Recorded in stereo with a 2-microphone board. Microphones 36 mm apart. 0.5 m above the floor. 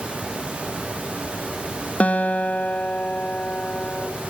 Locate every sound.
2.0 s a guitar: 40° left (ahead or behind), 3 m